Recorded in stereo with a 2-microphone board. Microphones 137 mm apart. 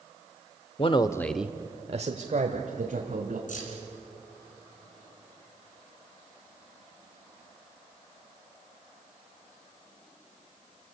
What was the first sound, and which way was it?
A man speaking, 45° left (ahead or behind).